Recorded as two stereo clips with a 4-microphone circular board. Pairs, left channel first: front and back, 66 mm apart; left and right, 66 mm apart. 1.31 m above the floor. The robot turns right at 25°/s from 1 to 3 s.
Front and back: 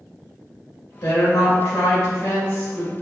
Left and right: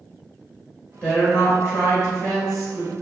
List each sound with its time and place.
1.0 s a woman speaking: 25° left, 1.4 m; by 2.9 s 70° left, 1.4 m